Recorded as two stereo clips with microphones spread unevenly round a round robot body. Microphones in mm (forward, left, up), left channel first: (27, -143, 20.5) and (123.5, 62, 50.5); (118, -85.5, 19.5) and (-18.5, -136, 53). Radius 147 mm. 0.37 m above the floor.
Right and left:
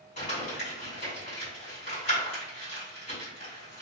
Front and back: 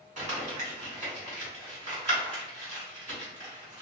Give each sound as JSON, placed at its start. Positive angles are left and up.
{"t": 0.2, "sound": "crumpling", "azimuth_deg": -140, "distance_m": 1.8}